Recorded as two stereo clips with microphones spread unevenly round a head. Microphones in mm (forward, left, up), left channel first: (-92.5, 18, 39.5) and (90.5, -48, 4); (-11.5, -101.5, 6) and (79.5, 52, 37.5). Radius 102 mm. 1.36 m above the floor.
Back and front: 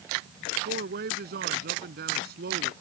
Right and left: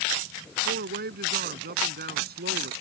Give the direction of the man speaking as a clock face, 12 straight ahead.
11 o'clock.